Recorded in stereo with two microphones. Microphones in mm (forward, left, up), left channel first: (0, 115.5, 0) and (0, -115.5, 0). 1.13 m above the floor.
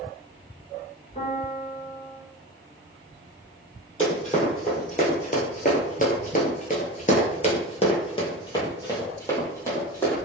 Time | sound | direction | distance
1.1 | a piano | 30° left (ahead or behind) | 1.8 m
4.0 | running footsteps | 30° left (ahead or behind) | 2.0 m